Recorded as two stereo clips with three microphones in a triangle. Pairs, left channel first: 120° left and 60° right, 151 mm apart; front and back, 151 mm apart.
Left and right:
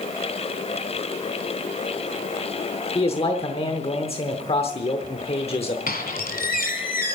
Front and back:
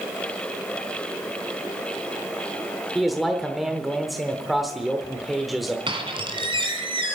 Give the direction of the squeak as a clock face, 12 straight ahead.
8 o'clock.